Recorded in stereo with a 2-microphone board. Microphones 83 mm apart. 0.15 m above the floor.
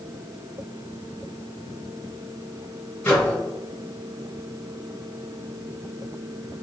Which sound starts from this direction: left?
A microwave, at 3.0 s.